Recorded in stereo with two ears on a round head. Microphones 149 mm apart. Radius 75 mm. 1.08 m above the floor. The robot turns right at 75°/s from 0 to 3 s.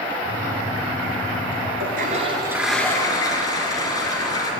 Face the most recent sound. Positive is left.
turn(degrees=25)